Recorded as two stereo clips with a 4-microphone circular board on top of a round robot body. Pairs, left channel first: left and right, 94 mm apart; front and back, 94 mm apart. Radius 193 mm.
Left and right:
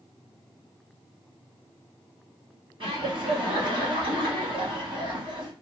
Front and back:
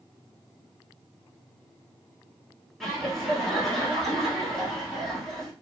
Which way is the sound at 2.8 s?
90° right.